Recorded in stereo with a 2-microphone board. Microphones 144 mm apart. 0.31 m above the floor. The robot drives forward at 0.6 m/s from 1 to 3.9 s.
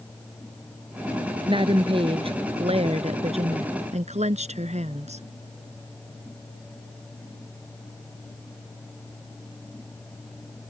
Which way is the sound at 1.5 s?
35° right (ahead or behind).